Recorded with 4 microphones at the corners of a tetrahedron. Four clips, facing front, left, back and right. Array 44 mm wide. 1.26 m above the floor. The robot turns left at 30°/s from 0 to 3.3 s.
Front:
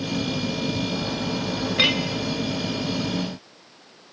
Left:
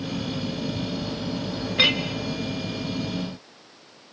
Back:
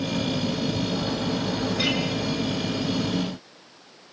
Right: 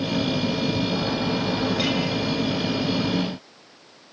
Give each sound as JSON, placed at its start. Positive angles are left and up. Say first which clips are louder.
{"t": 1.8, "sound": "a clink", "louder": "left 4 dB, front 6 dB", "azimuth_deg": 40, "distance_m": 2.0}